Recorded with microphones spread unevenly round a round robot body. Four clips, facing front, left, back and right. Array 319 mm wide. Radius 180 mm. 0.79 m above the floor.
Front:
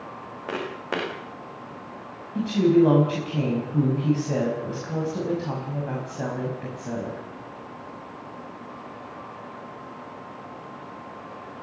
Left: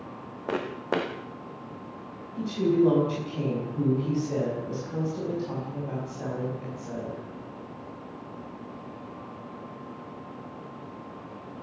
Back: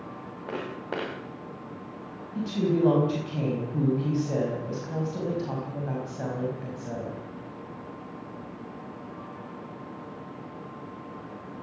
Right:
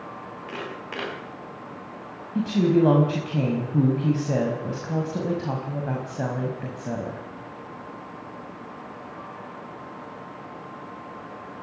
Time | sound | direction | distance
0.5 | footsteps | 70° left | 4 m
2.4 | a woman speaking | 75° right | 5.5 m